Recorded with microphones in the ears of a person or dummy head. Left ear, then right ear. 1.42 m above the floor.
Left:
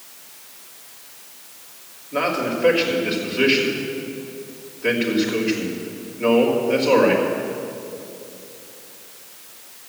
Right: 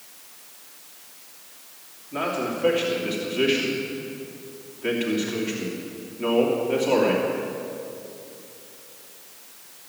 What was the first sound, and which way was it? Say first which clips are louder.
A man speaking: left 5 dB; 25° right (ahead or behind).